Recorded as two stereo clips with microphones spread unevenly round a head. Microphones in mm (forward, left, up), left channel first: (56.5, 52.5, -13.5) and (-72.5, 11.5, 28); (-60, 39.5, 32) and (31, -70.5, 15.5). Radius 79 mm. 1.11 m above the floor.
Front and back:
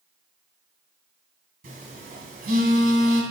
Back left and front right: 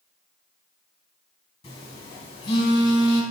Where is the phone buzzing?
170° right, 3.5 m.